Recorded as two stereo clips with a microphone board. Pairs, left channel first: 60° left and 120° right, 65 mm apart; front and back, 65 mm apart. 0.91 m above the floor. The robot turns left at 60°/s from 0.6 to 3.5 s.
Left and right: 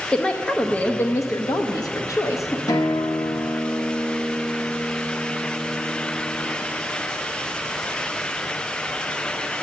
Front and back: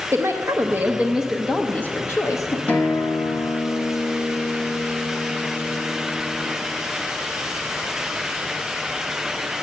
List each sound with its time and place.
0.1 s a woman speaking: 135° left, 0.6 m; by 2.6 s 15° left, 0.6 m
2.7 s a guitar: 65° left, 0.9 m; by 6.6 s 15° left, 0.9 m